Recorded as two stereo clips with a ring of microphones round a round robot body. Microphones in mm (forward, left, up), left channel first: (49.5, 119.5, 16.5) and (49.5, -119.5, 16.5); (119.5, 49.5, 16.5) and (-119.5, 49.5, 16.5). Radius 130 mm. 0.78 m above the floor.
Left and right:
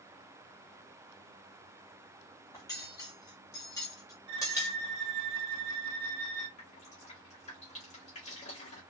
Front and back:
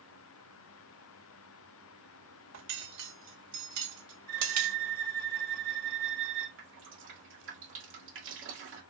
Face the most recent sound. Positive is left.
turn(degrees=155)